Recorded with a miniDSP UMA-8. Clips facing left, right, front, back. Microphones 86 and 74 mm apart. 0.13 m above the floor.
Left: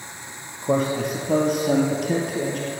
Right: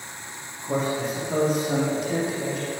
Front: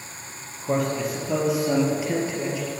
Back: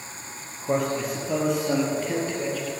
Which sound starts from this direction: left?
A man speaking, at 0.6 s.